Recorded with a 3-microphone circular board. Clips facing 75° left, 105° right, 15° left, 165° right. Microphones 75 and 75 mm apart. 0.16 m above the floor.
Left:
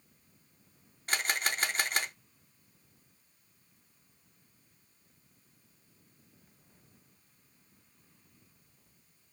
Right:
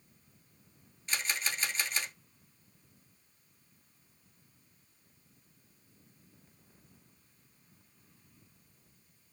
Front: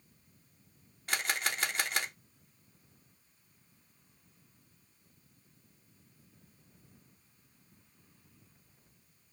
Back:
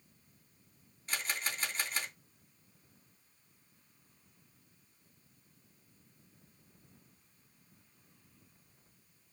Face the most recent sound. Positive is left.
turn(degrees=35)